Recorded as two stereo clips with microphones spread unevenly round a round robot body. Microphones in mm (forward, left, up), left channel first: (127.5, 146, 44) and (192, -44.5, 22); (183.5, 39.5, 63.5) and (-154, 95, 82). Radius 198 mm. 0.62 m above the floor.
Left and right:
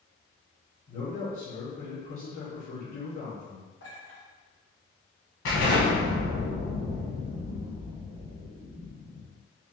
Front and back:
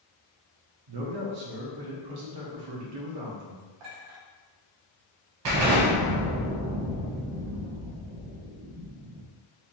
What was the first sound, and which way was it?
A man speaking, 175° left.